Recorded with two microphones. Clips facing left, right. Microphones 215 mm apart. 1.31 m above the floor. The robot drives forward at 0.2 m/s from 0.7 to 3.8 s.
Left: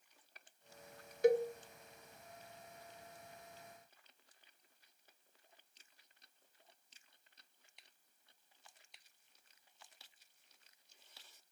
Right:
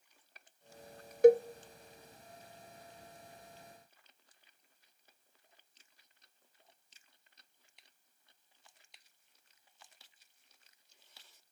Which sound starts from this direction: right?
A cowbell, at 1.2 s.